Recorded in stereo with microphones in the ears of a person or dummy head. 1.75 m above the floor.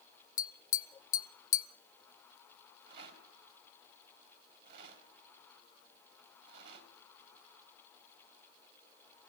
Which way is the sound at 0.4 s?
20° left (ahead or behind).